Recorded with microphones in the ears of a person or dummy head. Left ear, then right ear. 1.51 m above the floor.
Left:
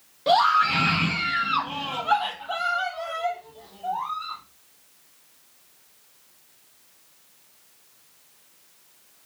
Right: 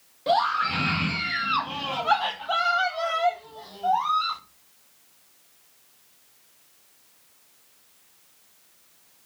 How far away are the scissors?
No scissors in this recording.